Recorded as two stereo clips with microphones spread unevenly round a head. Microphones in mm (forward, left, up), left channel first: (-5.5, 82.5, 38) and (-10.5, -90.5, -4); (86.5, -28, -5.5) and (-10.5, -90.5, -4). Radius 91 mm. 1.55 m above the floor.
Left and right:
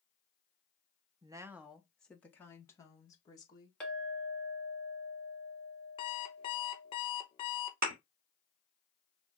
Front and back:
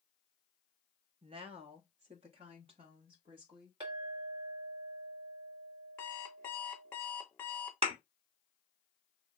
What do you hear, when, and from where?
1.2 s a woman speaking: 165° right, 0.6 m; by 3.7 s 150° left, 1.8 m
3.8 s a clink: 165° left, 1.5 m
6.0 s an alarm clock: 105° left, 0.8 m
7.8 s a thud: 130° right, 2.0 m